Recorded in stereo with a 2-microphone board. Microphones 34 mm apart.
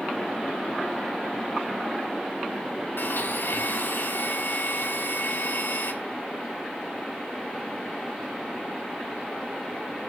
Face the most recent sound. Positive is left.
turn(degrees=80)